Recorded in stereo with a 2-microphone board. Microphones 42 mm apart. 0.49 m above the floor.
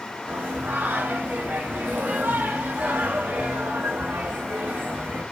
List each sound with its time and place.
0.3 s singing: 50° right (ahead or behind), 0.7 m